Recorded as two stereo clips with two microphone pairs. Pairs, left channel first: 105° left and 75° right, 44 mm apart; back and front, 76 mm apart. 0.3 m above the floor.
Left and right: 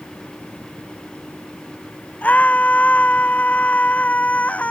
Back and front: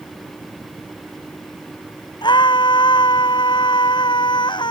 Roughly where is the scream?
Behind.